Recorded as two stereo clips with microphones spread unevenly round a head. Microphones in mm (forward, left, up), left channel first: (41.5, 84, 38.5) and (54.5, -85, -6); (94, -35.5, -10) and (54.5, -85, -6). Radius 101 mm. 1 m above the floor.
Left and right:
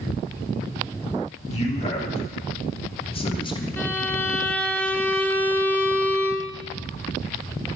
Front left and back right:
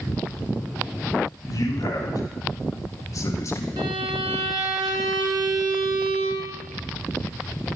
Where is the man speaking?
40° left, 3.5 m; by 3.7 s 25° left, 1.7 m.